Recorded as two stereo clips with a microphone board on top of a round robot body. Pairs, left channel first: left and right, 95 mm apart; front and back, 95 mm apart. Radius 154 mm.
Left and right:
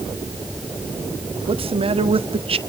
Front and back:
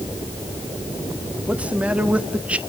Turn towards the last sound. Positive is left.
turn(degrees=-105)